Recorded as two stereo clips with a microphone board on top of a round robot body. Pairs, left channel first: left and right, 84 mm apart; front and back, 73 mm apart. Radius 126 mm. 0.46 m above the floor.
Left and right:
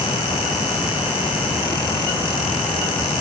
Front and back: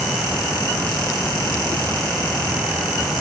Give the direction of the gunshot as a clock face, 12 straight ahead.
I don't hear a gunshot.